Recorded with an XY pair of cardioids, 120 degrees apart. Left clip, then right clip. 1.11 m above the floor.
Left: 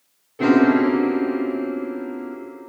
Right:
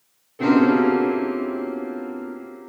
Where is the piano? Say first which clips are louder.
Left 1 dB; 20° left, 1.5 m.